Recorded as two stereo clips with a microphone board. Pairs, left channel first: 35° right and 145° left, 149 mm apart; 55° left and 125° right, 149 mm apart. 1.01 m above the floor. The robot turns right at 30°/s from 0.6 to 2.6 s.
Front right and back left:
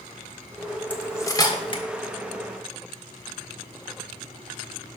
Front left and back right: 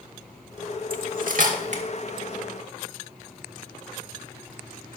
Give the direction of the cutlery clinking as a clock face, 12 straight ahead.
4 o'clock.